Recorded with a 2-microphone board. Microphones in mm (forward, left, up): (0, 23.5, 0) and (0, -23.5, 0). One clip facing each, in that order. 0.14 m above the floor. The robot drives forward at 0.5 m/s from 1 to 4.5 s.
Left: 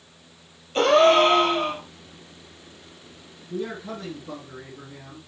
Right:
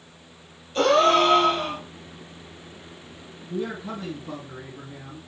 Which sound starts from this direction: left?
A gasp, at 0.8 s.